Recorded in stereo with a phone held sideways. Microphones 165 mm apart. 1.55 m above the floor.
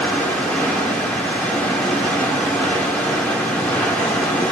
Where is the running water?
5° left (ahead or behind), 2.5 m.